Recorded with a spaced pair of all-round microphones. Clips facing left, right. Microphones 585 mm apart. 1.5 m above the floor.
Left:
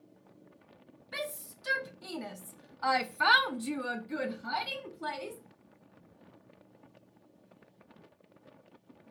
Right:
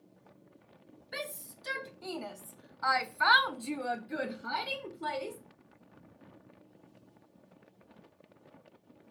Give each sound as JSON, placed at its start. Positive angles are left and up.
{"t": 1.1, "sound": "a shout", "side_deg": 30, "distance_m": 1.6}